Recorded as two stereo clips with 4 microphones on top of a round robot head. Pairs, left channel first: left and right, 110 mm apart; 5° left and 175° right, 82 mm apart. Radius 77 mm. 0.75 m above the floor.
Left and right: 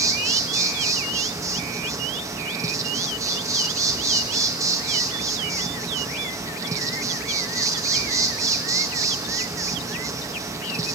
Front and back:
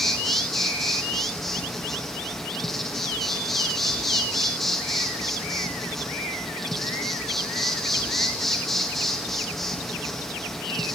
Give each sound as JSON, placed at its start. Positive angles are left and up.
{"t": 0.0, "sound": "an insect", "azimuth_deg": -75, "distance_m": 1.0}